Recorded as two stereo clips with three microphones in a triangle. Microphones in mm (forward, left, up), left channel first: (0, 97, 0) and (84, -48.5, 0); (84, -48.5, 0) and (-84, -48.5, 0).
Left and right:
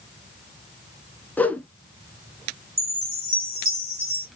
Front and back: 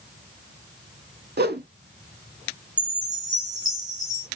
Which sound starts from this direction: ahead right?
A chime, at 2.8 s.